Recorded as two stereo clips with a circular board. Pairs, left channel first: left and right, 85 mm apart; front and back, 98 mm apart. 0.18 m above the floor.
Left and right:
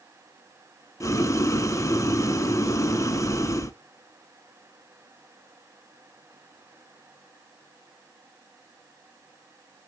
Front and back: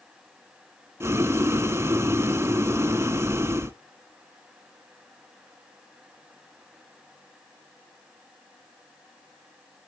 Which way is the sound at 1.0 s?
125° left.